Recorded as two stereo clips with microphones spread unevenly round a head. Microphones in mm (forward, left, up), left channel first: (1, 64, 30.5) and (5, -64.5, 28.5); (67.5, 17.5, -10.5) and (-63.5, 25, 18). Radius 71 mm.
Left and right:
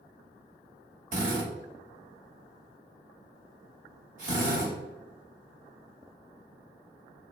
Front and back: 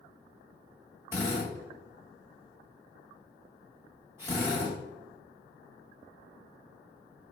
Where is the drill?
115° right, 1.7 m.